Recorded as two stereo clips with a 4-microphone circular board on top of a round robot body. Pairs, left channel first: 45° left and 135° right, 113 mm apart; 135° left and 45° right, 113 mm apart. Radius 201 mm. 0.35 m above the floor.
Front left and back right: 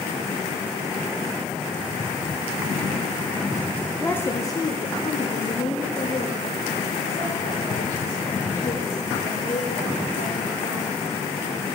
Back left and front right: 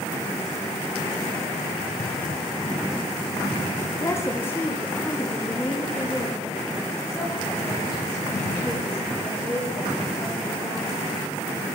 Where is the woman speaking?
110° left, 1.0 m; by 10.9 s 40° left, 4.5 m.